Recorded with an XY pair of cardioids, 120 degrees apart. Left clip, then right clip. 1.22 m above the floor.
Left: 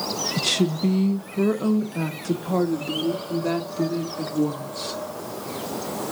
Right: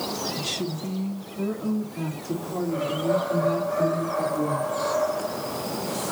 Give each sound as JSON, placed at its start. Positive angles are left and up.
{"t": 0.4, "sound": "a woman speaking", "azimuth_deg": 50, "distance_m": 0.6}